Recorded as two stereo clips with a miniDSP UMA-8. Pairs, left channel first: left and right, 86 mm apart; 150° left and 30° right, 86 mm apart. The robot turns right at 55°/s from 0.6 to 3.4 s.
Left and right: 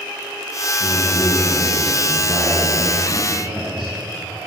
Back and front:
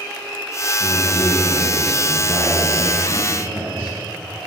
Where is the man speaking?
115° left, 3.5 m; by 3.9 s 105° right, 3.5 m.